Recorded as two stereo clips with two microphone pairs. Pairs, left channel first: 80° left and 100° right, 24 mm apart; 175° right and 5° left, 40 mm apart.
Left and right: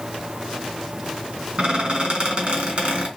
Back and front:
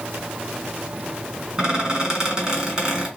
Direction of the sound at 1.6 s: 65° right.